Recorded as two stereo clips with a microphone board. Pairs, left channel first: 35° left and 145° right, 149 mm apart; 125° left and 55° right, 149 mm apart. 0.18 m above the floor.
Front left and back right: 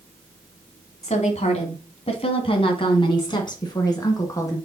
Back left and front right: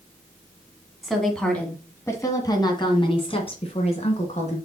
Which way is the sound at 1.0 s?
35° left.